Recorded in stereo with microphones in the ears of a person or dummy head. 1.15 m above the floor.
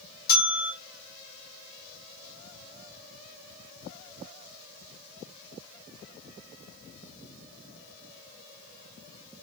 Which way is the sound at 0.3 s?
45° left (ahead or behind).